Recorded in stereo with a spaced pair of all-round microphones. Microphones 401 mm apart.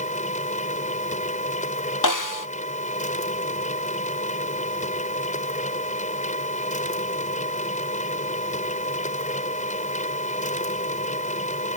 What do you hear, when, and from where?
0.0 s a machine running: 20° left (ahead or behind)
2.0 s a snare drum: 50° left (ahead or behind)